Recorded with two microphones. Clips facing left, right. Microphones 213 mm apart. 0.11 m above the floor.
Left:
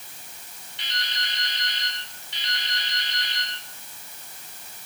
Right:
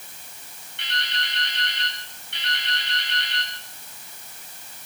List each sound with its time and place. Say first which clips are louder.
0.8 s dripping: right 3 dB; 60° right (ahead or behind), 9.5 m